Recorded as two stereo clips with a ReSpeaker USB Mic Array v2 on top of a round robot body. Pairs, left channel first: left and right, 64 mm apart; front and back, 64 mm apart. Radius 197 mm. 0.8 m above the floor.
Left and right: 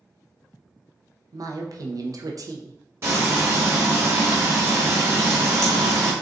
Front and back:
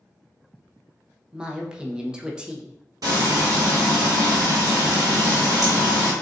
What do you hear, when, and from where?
1.3 s a woman speaking: 105° right, 1.0 m
3.0 s frying: 145° right, 1.3 m